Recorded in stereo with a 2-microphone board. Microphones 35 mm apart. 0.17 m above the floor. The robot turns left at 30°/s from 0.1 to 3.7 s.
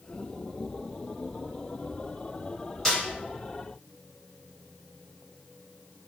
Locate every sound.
2.9 s a snare drum: 5° left (ahead or behind), 1.9 m; by 3.0 s 10° left (ahead or behind), 1.9 m